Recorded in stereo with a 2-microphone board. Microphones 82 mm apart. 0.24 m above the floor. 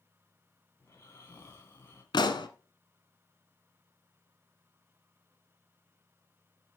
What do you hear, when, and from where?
0.8 s snoring: 30° left (ahead or behind), 2.5 m
2.1 s a pop: 70° left (ahead or behind), 1.0 m